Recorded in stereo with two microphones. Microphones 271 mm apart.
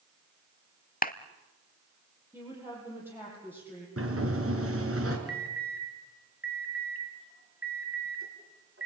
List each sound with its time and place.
1.0 s a clap: 35° left (ahead or behind), 0.9 m
2.3 s a woman speaking: 10° right (ahead or behind), 10 m
4.0 s a sliding door: 60° right (ahead or behind), 4 m
5.3 s an alarm: 55° right (ahead or behind), 4 m